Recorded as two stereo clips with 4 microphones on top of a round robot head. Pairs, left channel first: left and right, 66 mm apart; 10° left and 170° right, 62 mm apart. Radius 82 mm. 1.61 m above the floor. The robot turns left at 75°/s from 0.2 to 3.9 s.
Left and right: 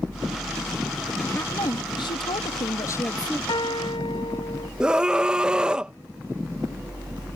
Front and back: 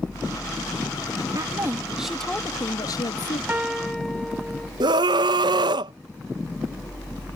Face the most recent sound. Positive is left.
turn(degrees=-170)